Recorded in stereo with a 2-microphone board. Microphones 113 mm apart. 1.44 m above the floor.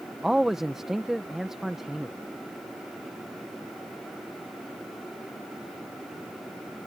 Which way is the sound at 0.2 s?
5° right (ahead or behind).